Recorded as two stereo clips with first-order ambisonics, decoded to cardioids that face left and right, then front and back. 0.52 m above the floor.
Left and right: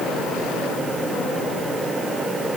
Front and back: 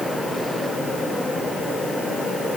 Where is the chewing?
I don't hear chewing.